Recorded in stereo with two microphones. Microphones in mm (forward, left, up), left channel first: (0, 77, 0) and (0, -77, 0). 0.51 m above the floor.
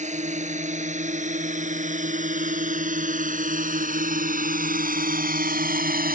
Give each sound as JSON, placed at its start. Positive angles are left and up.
{"t": 0.0, "sound": "a drone", "side_deg": -50}